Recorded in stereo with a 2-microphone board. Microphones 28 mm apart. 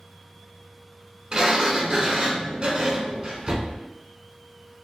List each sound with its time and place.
1.3 s a sliding door: 30° right (ahead or behind), 0.6 m